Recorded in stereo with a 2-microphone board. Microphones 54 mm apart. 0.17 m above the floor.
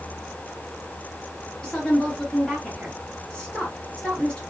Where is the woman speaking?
20° left (ahead or behind), 2 m.